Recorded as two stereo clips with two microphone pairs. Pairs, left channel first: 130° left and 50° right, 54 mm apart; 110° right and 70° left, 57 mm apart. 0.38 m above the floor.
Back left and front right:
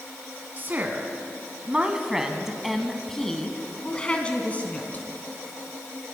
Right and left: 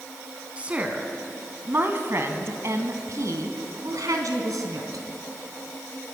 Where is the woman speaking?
Straight ahead, 3 m; by 5.0 s 75° left, 3 m.